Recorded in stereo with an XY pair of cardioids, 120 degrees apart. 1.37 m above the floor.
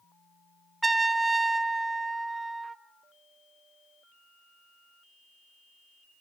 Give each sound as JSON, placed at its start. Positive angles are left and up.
{"t": 0.8, "sound": "a trumpet", "azimuth_deg": -15, "distance_m": 0.7}